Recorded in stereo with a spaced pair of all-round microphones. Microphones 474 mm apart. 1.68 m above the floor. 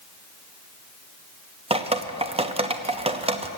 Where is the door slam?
I don't hear a door slam.